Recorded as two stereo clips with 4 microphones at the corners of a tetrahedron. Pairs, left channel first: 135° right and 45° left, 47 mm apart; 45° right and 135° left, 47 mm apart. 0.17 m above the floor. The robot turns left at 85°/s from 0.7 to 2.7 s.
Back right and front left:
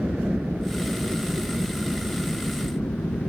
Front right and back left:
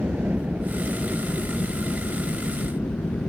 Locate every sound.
0.0 s a helicopter: 100° left; by 3.3 s 80° right